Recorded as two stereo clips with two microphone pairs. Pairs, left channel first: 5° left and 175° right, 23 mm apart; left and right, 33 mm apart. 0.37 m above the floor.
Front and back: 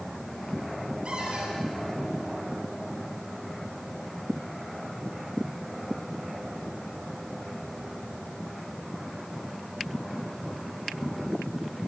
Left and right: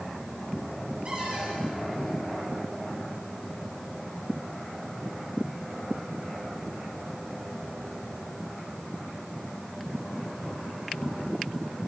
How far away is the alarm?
I don't hear an alarm.